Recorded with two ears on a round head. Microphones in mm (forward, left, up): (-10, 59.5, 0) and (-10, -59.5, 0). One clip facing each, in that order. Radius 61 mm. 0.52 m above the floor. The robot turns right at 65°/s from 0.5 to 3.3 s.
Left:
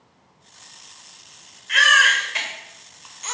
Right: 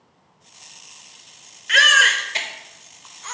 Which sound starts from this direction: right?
A baby crying, at 1.7 s.